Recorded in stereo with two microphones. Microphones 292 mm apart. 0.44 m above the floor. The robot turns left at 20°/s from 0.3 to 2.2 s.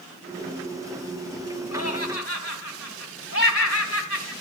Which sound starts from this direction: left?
Laughter, at 1.7 s.